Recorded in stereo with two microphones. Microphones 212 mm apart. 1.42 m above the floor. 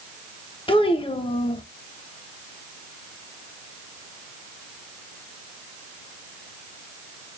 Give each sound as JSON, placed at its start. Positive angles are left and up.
{"t": 0.7, "sound": "a child speaking", "side_deg": 25, "distance_m": 0.7}